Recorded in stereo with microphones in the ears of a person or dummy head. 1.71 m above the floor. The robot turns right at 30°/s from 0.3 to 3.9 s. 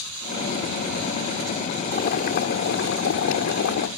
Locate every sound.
1.9 s boiling: 55° left; by 3.9 s 115° left